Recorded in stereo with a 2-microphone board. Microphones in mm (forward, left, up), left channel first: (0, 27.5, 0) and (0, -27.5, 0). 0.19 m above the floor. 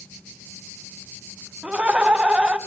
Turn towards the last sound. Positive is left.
turn(degrees=-20)  # may be behind; listen again after turning